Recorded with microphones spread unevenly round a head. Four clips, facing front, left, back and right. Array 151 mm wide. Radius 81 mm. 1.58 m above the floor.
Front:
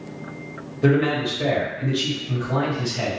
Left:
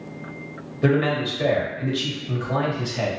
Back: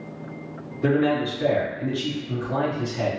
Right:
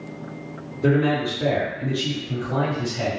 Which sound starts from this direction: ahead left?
A man speaking, at 0.8 s.